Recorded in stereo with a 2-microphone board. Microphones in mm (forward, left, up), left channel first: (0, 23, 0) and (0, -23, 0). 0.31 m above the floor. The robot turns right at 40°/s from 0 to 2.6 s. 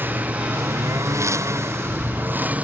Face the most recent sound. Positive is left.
turn(degrees=-30)